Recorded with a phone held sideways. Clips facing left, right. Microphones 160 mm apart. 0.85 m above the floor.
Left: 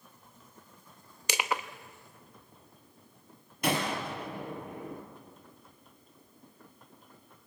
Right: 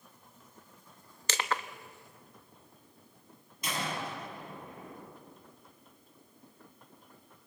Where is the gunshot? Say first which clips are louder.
Left 6 dB; 65° left (ahead or behind), 5 m.